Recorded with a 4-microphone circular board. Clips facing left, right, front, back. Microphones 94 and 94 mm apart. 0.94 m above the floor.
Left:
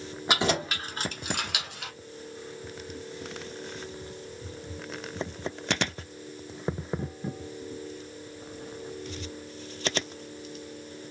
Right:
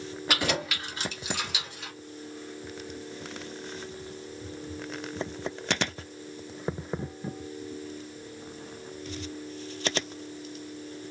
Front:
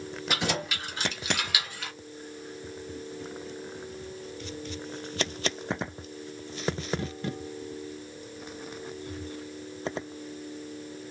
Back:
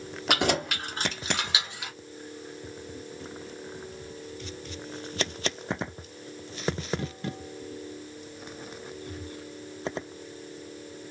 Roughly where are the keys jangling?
Behind.